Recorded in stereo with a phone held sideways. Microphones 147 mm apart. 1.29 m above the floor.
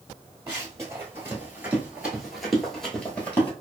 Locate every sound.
0.5 s running footsteps: 20° right (ahead or behind), 1.6 m; by 3.5 s 10° left (ahead or behind), 1.4 m